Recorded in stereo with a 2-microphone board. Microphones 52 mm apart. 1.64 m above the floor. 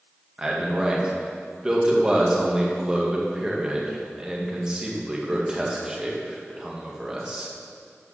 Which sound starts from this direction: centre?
A man speaking, at 0.4 s.